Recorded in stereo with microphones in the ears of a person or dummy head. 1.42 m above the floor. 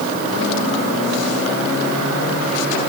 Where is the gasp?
I don't hear a gasp.